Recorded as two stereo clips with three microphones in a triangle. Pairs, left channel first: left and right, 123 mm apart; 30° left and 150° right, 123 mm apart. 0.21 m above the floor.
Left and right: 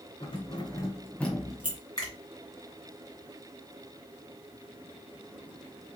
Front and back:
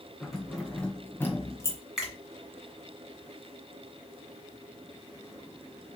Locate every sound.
0.2 s keys jangling: 125° left, 1.3 m; by 1.8 s 25° right, 1.0 m
2.0 s a finger snap: 125° left, 1.8 m